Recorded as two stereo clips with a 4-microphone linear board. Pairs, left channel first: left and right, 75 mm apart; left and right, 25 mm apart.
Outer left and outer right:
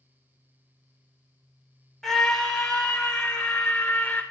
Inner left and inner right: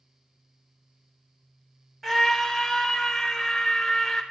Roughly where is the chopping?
No chopping in this recording.